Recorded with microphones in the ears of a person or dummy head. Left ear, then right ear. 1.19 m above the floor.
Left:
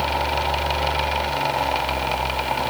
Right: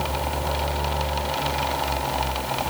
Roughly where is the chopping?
I don't hear chopping.